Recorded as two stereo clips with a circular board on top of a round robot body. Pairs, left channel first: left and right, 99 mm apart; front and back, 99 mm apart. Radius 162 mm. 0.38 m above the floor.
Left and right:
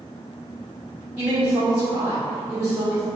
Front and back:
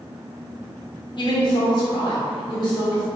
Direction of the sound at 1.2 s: 10° right.